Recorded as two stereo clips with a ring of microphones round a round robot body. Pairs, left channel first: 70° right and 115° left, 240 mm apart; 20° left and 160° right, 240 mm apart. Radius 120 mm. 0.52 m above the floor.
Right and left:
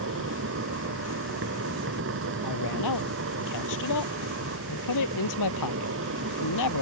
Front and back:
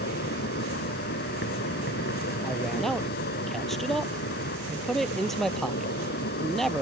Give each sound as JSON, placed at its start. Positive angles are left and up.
{"t": 0.0, "sound": "an insect", "azimuth_deg": 75}
{"t": 2.4, "sound": "a man speaking", "azimuth_deg": -65}